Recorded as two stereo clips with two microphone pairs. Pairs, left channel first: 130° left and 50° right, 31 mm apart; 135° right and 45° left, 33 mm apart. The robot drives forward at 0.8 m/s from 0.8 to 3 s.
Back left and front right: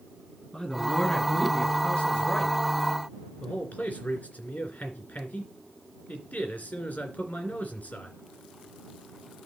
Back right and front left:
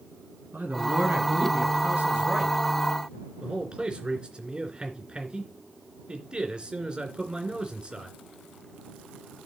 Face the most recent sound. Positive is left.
turn(degrees=105)